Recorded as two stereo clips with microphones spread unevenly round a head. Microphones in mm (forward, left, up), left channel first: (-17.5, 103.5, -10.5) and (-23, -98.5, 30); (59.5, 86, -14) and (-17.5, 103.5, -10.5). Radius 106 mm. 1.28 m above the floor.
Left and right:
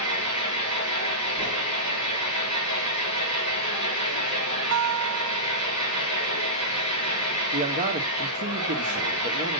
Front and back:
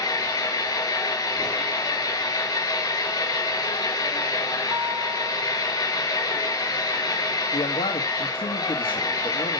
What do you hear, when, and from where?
0.0 s an engine running: 20° left, 5.5 m
4.7 s a guitar: 120° right, 1.1 m
7.5 s a man speaking: 35° right, 1.7 m